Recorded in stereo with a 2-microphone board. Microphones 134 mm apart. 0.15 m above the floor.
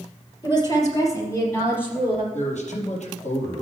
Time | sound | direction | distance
0.4 | a woman speaking | 35° left (ahead or behind) | 4.5 m
2.3 | a man speaking | 65° left (ahead or behind) | 4 m